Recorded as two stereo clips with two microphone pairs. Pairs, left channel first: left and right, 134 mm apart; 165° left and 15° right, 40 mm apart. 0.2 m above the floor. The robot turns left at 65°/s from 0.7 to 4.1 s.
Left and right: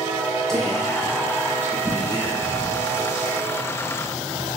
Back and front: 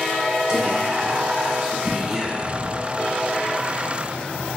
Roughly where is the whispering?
Ahead.